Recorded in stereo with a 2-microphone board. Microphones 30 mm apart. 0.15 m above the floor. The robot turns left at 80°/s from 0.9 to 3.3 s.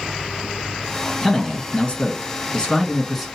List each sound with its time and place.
1.2 s a man speaking: 165° left, 1.3 m; by 3.3 s straight ahead, 1.3 m